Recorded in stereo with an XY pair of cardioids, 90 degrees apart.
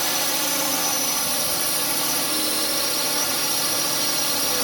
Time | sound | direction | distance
0.0 | a drone | 10° right | ?